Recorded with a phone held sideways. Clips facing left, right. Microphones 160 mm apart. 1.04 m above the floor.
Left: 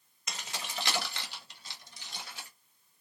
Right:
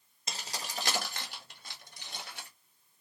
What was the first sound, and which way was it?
Keys jangling, 30° right (ahead or behind).